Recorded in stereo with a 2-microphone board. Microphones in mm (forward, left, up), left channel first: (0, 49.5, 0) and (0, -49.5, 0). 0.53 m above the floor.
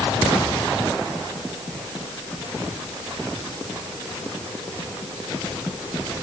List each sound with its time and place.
Only background noise.